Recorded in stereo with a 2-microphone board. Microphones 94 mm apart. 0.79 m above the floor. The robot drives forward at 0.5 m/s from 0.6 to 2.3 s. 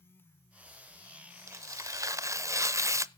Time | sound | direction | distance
1.5 | tearing paper | 35° right (ahead or behind) | 0.6 m